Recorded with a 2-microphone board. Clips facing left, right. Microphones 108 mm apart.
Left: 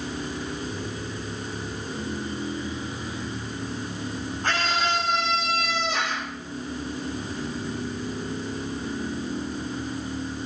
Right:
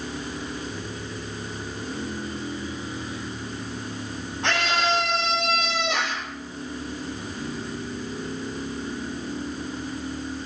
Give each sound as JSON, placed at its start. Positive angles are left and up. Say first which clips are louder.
{"t": 4.4, "sound": "a scream", "louder": "right 2 dB", "side_deg": -75, "distance_m": 6.0}